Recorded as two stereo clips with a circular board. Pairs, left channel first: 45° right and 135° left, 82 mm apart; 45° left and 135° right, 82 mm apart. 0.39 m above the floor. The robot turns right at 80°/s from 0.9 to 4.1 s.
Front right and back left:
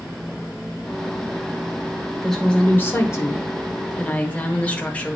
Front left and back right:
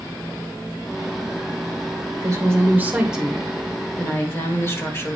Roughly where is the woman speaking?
Behind right.